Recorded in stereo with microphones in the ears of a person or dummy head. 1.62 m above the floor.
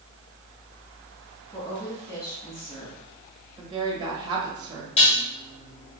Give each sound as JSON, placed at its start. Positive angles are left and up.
{"t": 1.5, "sound": "a woman speaking", "side_deg": 20, "distance_m": 1.6}
{"t": 3.6, "sound": "a woman speaking", "side_deg": -30, "distance_m": 1.4}
{"t": 5.0, "sound": "dishes clattering", "side_deg": 35, "distance_m": 2.0}